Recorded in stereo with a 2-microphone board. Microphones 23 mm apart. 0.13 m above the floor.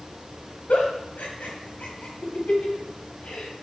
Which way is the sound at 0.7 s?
70° left (ahead or behind).